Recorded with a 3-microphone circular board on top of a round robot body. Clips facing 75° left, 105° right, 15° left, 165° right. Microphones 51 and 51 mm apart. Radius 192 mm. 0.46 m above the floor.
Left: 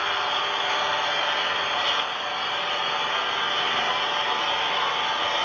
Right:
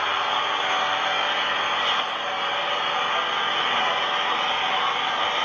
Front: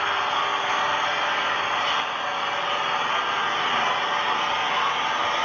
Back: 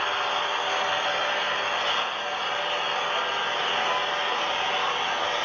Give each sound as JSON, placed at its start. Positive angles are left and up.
{"t": 0.0, "sound": "an engine running", "azimuth_deg": -30, "distance_m": 3.5}